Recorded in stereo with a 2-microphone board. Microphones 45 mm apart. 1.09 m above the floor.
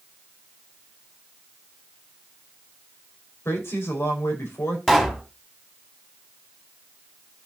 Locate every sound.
3.5 s a woman speaking: 70° left (ahead or behind), 4.5 m
4.9 s a pop: 5° left (ahead or behind), 2.5 m